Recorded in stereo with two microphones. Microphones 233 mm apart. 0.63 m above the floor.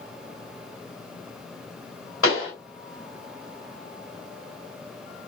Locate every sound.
2.2 s a pop: 65° left (ahead or behind), 2 m